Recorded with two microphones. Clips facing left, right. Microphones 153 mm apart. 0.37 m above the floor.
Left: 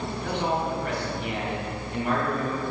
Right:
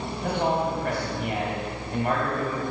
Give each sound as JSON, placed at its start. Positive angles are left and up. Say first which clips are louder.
{"t": 0.2, "sound": "a man speaking", "louder": "right 3 dB", "side_deg": -50, "distance_m": 2.0}